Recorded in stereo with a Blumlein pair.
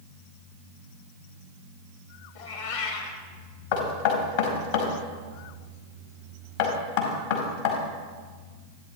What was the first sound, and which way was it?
A cat meowing, 55° left.